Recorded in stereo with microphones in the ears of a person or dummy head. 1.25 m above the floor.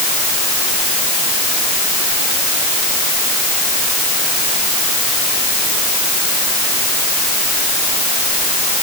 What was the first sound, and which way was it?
Only background noise.